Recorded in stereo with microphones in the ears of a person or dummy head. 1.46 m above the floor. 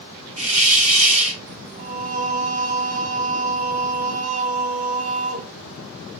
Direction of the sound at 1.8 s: 45° right (ahead or behind).